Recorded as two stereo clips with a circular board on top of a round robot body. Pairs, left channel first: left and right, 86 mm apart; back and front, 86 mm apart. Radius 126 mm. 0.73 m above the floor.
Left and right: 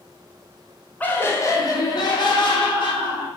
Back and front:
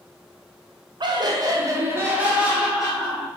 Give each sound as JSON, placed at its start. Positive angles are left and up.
{"t": 1.0, "sound": "laughter", "azimuth_deg": 20, "distance_m": 0.9}